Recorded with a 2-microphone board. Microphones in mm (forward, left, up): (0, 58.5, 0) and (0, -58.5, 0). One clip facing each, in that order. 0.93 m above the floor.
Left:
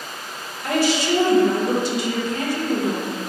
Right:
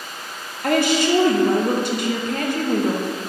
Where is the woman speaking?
55° right (ahead or behind), 0.6 m.